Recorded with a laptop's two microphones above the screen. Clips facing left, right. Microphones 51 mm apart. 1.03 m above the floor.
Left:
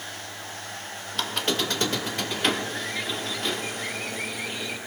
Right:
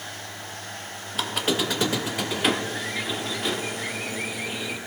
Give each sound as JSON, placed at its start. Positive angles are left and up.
{"t": 1.1, "sound": "a squeak", "side_deg": -5, "distance_m": 0.7}